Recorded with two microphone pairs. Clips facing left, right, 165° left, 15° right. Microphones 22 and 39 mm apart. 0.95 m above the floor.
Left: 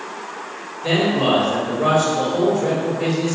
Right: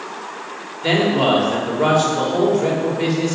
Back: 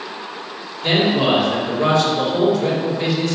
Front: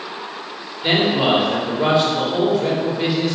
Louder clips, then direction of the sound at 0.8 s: Right 2 dB, even; 95° right.